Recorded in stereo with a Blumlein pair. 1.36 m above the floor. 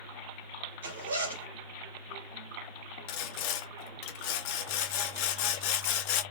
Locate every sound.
0.8 s a zipper: 55° right, 1.6 m
3.1 s sawing: 45° left, 0.6 m